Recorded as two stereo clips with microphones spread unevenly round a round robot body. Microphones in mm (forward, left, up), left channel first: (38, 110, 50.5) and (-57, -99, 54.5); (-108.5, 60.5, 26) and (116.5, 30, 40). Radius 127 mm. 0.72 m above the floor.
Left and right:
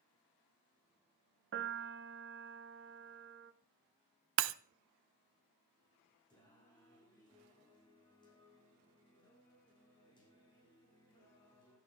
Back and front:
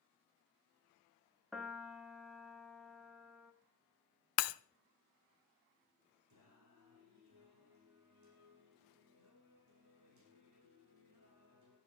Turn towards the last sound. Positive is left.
turn(degrees=-10)